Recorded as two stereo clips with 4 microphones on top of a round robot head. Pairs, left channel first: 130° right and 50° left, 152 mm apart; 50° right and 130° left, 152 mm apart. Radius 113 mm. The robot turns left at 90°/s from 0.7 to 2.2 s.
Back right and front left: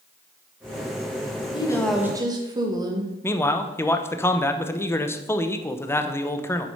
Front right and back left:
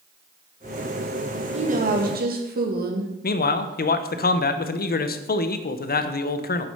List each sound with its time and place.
1.5 s a woman speaking: 175° left, 2.0 m; by 3.1 s 115° left, 2.0 m
3.2 s a man speaking: 55° right, 0.9 m